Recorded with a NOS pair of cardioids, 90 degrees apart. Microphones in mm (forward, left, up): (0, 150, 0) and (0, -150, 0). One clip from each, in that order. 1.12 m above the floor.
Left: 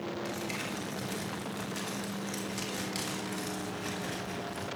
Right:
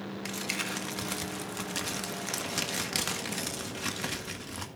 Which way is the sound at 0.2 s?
60° right.